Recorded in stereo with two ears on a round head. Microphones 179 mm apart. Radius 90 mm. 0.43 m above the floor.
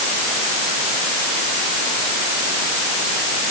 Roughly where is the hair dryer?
I don't hear a hair dryer.